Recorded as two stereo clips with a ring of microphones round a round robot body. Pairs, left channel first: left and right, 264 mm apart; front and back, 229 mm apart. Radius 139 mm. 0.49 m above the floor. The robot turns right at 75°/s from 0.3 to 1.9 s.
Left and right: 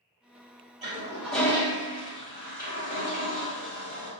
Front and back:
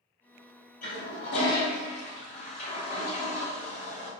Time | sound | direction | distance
0.8 | a toilet flushing | 35° right | 1.4 m